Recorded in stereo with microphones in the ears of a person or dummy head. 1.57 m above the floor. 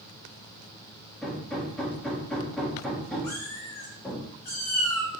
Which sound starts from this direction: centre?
Hammering, at 1.2 s.